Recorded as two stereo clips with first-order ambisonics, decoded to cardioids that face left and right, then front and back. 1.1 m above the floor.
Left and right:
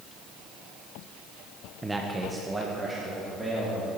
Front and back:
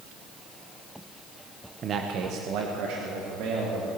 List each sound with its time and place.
1.8 s a man speaking: 165° right, 0.8 m; by 3.9 s 175° right, 2.5 m